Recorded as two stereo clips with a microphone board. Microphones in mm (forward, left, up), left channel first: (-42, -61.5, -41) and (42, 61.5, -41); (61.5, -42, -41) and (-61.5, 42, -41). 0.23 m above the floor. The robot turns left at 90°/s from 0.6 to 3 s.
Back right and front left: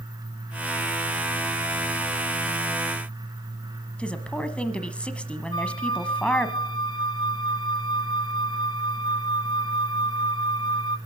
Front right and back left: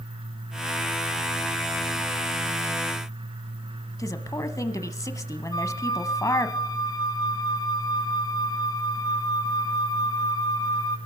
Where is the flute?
85° right, 1.4 m.